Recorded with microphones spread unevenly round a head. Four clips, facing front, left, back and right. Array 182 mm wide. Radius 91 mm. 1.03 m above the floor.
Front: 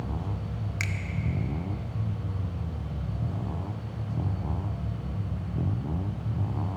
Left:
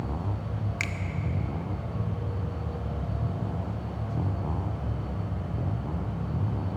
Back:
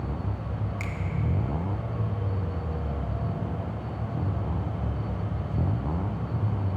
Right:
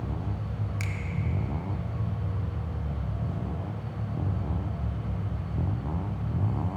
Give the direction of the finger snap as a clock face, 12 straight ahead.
11 o'clock.